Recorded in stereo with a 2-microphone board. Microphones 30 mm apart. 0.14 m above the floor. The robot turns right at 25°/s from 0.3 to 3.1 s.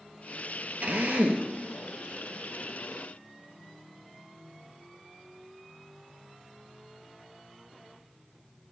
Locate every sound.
0.8 s a drill: 55° right (ahead or behind), 1.5 m; by 1.5 s 65° right (ahead or behind), 1.5 m